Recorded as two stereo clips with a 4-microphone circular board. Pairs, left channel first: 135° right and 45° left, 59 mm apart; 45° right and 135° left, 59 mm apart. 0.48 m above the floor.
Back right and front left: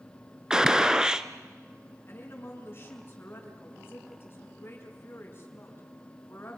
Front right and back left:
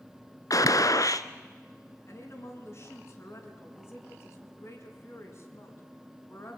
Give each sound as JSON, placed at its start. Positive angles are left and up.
{"t": 0.5, "sound": "a gunshot", "azimuth_deg": -35, "distance_m": 1.0}
{"t": 2.1, "sound": "a woman speaking", "azimuth_deg": -85, "distance_m": 5.5}